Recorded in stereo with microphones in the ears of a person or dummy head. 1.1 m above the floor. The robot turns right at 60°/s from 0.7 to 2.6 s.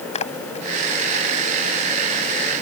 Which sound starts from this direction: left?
A splash, at 0.1 s.